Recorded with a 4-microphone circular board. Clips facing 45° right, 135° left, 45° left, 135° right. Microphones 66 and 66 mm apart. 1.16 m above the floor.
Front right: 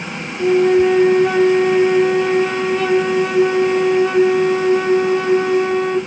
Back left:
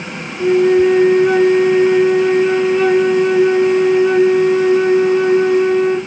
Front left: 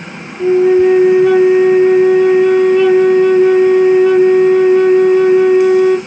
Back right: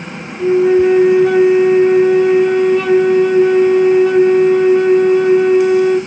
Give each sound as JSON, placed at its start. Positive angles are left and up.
{"t": 0.4, "sound": "a flute", "azimuth_deg": -15, "distance_m": 1.6}